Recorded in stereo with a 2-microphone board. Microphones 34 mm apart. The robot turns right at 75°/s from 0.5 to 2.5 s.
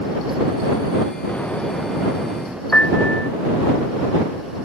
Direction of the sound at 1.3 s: 130° left.